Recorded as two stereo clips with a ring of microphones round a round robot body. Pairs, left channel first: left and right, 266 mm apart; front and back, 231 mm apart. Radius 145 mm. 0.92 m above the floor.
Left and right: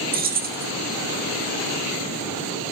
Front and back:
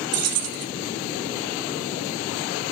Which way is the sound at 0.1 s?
150° right.